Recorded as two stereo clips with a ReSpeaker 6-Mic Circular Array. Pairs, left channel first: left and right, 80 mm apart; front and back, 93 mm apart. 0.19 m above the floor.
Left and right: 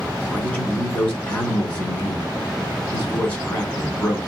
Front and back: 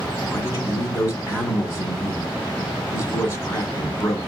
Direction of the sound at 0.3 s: 25° left.